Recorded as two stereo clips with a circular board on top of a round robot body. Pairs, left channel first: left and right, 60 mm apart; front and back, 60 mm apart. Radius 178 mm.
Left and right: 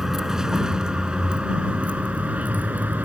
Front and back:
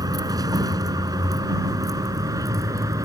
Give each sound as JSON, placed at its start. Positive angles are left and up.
{"t": 0.0, "sound": "a vehicle", "azimuth_deg": -175}